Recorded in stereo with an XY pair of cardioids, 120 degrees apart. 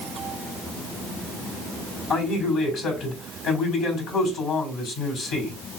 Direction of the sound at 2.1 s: 60° left.